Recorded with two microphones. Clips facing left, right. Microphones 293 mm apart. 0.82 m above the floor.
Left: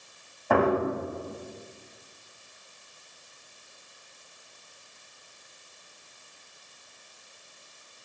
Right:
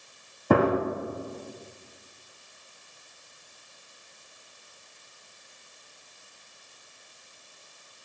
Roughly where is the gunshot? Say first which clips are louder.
Right 2 dB; right.